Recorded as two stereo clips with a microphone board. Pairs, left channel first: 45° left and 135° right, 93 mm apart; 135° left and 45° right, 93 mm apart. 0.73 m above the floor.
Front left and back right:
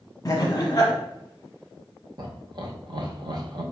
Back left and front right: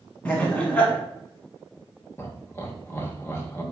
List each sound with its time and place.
0.2 s laughter: 65° left, 0.9 m
2.2 s laughter: 165° right, 0.7 m